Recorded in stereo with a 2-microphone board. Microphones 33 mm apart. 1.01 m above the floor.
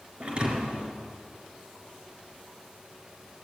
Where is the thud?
35° right (ahead or behind), 3.5 m.